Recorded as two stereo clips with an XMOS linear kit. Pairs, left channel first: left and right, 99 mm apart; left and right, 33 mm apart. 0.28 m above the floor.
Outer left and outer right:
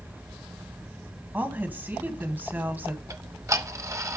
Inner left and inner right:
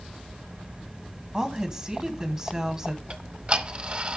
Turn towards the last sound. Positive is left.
turn(degrees=-35)  # may be behind; listen again after turning